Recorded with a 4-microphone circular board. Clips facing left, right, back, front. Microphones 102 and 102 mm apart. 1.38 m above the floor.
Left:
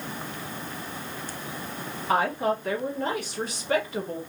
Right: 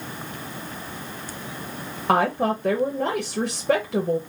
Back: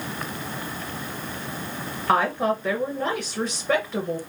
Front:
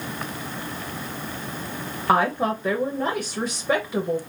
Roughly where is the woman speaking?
Right.